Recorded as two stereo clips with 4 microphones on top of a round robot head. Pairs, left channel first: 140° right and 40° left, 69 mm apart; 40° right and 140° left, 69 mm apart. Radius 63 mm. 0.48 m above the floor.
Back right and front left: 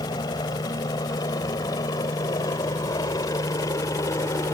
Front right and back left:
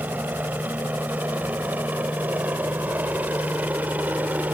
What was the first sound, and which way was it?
A helicopter, 155° right.